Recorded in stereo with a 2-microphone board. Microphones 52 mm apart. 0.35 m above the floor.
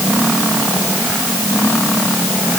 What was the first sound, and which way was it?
Only background noise.